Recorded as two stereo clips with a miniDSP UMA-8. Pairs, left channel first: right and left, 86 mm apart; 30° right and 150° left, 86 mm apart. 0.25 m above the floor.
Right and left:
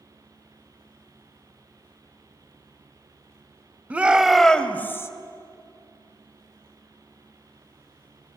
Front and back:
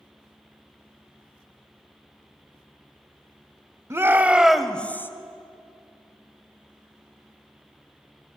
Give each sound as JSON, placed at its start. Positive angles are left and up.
{"t": 3.9, "sound": "a shout", "azimuth_deg": 145, "distance_m": 1.2}